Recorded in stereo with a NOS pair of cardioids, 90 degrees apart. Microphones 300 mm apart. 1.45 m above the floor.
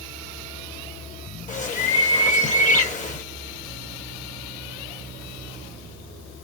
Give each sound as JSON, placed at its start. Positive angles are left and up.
{"t": 1.5, "sound": "a bird", "azimuth_deg": 25, "distance_m": 1.2}